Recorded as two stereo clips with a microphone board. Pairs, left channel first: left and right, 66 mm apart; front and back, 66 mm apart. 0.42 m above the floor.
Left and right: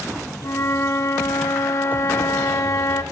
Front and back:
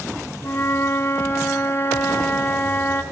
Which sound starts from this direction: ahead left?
A flute, at 0.4 s.